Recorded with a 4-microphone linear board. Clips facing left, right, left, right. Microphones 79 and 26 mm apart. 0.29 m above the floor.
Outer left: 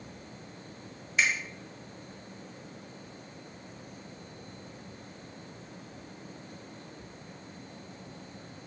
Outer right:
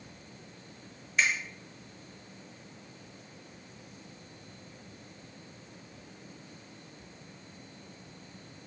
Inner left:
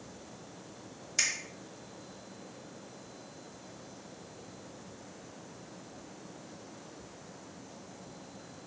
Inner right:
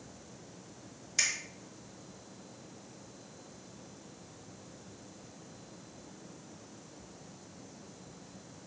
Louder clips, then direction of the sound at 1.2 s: Even, even; centre (ahead or behind).